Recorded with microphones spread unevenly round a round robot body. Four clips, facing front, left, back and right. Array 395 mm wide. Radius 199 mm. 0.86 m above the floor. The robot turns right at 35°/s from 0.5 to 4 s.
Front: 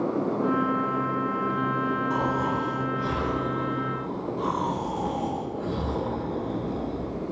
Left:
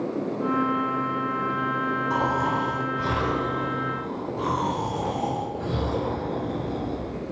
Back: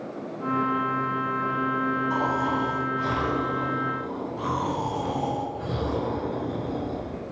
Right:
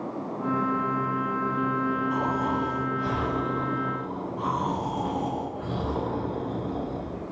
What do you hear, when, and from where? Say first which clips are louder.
2.1 s snoring: left 2 dB, back 1 dB; 65° left, 3.5 m; by 7.2 s 130° left, 3.5 m